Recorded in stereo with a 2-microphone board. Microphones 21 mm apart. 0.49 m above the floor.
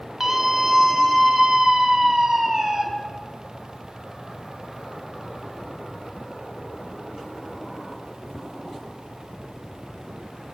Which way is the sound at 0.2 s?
20° right (ahead or behind).